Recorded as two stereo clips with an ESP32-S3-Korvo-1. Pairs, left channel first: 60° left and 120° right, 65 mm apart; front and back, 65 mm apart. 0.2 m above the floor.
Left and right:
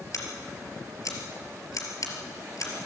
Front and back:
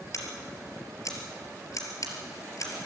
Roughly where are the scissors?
Ahead left.